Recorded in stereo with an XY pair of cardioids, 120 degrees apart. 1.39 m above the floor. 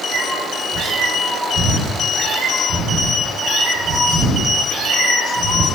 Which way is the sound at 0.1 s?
60° right.